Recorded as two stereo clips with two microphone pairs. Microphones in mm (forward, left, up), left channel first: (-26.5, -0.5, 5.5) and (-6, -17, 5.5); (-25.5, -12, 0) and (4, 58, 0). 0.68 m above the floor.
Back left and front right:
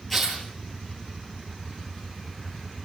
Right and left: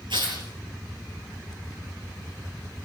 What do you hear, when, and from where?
0.1 s tearing paper: 65° left, 7 m